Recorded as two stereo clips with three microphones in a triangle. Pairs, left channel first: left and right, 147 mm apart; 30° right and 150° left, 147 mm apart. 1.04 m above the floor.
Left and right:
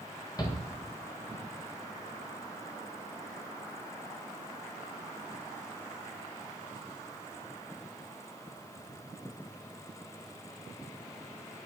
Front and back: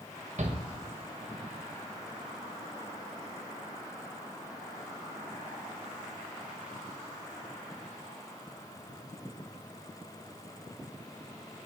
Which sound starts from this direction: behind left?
A shout, at 0.4 s.